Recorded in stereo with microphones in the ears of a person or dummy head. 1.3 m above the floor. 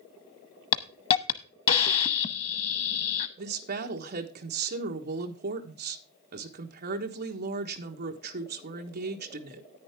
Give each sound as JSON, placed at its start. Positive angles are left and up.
{"t": 0.7, "sound": "a hiss", "side_deg": 35, "distance_m": 0.9}
{"t": 3.4, "sound": "a woman speaking", "side_deg": -45, "distance_m": 1.2}